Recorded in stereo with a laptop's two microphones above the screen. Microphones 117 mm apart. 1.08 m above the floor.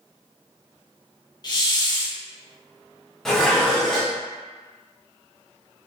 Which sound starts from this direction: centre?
Dishes clattering, at 3.2 s.